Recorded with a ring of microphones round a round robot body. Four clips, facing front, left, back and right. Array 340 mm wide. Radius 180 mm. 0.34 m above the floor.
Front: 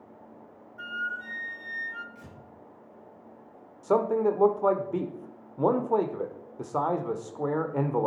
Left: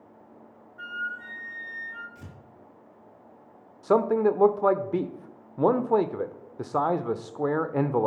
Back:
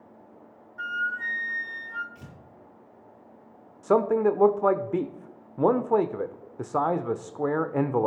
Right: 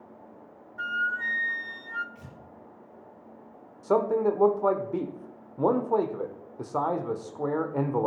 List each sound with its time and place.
0.8 s a flute: 115° right, 1.1 m
2.1 s tearing paper: 140° left, 5 m
3.8 s a man speaking: 135° left, 1.0 m